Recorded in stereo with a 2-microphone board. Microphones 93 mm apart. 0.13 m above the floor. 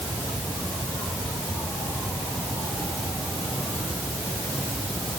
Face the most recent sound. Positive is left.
No sound to turn to.